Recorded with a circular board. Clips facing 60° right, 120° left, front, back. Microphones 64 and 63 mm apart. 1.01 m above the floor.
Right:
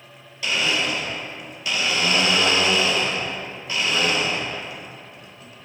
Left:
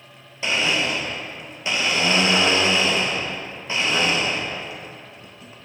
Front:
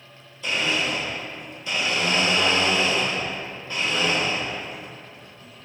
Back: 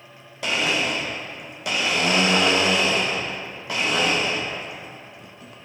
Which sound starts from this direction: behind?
A blender, at 0.4 s.